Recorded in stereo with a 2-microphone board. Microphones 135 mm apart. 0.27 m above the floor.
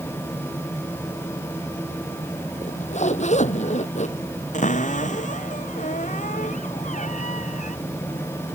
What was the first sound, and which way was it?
A zipper, 60° left (ahead or behind).